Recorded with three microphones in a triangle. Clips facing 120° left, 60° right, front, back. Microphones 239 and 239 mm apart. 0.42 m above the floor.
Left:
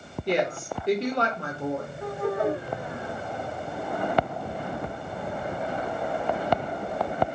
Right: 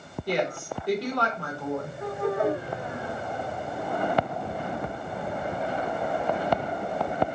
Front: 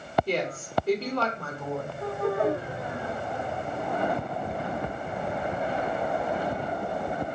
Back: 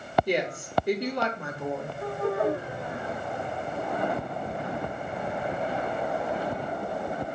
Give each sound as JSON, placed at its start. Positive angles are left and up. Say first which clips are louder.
{"t": 0.3, "sound": "a woman speaking", "louder": "left 2 dB, back 1 dB", "azimuth_deg": 135, "distance_m": 0.9}